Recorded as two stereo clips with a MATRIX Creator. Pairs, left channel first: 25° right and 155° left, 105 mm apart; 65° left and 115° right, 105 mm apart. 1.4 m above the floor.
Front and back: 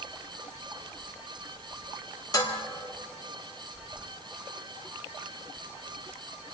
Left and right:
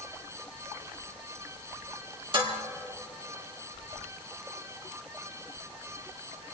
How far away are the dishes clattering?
About 2.5 m.